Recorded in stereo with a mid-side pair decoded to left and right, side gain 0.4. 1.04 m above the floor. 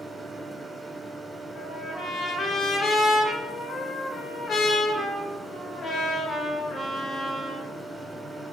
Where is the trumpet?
55° left, 2.5 m.